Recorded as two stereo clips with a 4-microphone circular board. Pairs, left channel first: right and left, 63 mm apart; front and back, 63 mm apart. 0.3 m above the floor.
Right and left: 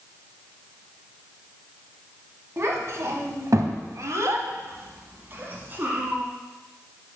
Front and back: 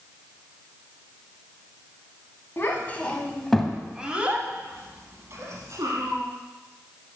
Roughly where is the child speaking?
Ahead left.